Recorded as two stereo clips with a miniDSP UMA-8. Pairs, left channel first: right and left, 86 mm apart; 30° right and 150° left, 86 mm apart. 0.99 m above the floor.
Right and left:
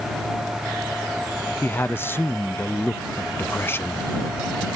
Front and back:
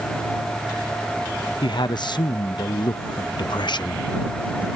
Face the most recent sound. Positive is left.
turn(degrees=-30)